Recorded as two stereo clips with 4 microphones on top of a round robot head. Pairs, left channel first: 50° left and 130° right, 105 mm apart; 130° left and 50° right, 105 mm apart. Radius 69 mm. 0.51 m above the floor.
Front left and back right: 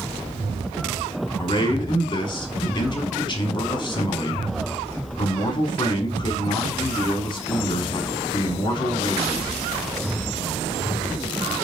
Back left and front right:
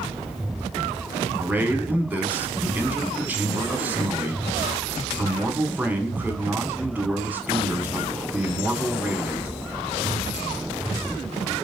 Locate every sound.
1.4 s a man speaking: 20° left, 1.1 m